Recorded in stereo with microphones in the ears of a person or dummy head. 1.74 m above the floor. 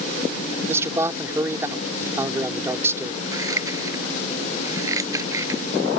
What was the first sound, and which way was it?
A man speaking, 10° right (ahead or behind).